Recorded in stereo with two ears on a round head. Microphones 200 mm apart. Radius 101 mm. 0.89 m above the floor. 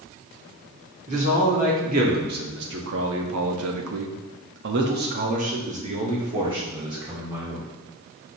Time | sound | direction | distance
1.1 | a man speaking | 30° right (ahead or behind) | 2.0 m